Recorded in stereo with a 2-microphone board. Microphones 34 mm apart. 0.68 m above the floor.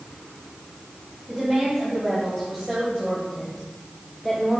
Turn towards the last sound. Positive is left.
turn(degrees=0)  # may be behind; listen again after turning